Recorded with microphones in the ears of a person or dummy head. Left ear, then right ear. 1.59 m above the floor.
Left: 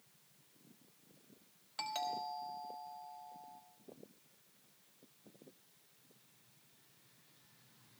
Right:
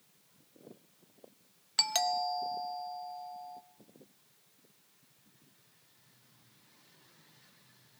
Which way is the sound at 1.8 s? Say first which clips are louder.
Right 10 dB; 45° right (ahead or behind).